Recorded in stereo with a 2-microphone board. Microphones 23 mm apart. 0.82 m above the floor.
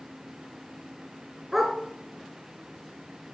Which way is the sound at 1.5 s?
5° right (ahead or behind).